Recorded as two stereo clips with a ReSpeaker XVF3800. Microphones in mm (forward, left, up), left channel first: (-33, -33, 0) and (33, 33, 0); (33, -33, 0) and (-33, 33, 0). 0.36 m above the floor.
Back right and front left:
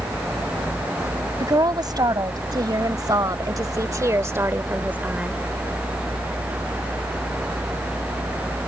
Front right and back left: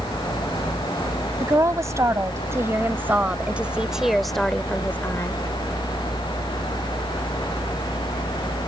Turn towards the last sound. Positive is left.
turn(degrees=-25)